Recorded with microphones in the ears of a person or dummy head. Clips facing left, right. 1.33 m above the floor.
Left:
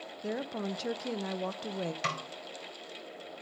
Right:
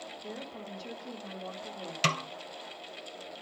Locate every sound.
0.2 s a woman speaking: 80° left, 0.6 m
2.0 s a snare drum: 45° right (ahead or behind), 0.5 m